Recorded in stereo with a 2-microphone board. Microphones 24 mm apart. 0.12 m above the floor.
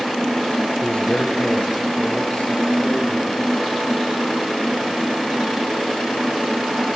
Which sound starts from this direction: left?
A man speaking, at 0.8 s.